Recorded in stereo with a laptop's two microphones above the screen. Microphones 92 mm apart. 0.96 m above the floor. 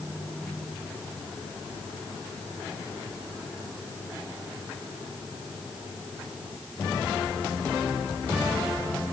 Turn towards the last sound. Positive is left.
No sound to turn to.